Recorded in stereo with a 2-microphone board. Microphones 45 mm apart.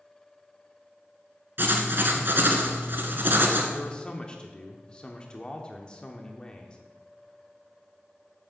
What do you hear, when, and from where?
1.6 s writing: 50° right (ahead or behind), 1.4 m
3.7 s a man speaking: 20° left (ahead or behind), 0.8 m